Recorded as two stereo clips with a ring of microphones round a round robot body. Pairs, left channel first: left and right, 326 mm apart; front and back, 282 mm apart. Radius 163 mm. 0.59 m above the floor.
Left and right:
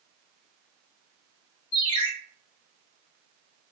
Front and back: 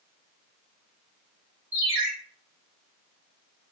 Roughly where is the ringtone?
Behind left.